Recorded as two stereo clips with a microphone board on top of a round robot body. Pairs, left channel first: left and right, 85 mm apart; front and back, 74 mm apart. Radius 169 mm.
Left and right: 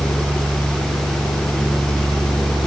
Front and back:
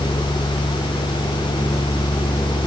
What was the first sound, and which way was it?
Only background noise.